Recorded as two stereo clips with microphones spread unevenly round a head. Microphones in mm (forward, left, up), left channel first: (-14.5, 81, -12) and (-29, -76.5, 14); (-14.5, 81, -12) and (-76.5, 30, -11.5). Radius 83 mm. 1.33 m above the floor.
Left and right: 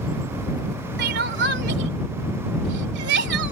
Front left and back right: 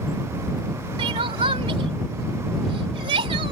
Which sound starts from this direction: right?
Crying, at 1.0 s.